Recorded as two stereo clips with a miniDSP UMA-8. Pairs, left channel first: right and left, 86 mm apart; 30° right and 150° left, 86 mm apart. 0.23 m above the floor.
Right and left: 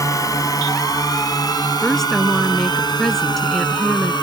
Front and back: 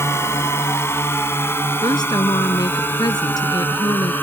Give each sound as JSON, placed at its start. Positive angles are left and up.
{"t": 0.0, "sound": "a drone", "azimuth_deg": -70}
{"t": 1.8, "sound": "a woman speaking", "azimuth_deg": -5}